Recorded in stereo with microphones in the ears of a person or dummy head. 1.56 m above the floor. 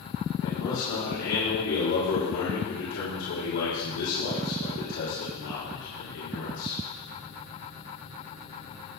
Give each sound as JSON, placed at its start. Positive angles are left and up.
{"t": 0.4, "sound": "a man speaking", "side_deg": 75, "distance_m": 5.0}